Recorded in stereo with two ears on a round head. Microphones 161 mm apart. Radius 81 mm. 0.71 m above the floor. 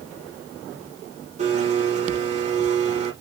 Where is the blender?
35° right (ahead or behind), 5.5 m.